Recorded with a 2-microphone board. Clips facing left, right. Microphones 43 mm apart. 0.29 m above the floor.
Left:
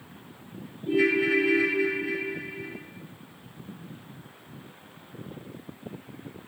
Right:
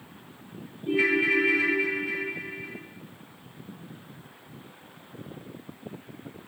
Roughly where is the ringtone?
Right.